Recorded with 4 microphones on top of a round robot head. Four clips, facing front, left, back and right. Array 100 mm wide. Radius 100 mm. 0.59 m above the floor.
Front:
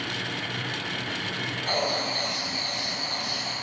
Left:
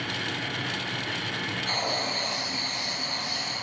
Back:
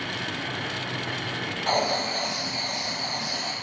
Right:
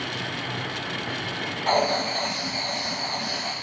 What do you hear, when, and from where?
1.7 s writing: 120° right, 0.7 m